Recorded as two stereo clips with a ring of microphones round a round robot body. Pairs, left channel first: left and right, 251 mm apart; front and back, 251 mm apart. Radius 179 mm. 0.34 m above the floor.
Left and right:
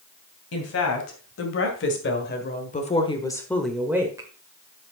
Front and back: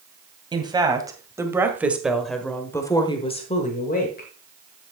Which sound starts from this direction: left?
A woman speaking, at 0.5 s.